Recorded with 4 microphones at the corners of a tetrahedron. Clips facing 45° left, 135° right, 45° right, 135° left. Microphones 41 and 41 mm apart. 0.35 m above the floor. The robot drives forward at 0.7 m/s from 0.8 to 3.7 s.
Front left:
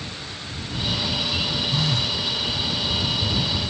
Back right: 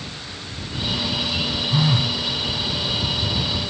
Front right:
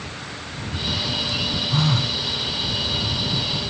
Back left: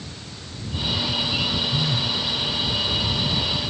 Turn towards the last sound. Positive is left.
turn(degrees=-105)